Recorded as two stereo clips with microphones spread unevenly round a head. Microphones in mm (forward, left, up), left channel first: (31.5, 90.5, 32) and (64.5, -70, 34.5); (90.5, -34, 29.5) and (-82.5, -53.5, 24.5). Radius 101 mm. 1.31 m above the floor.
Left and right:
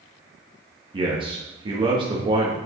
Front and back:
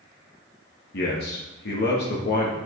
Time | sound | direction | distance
0.9 | a man speaking | 20° right | 1.6 m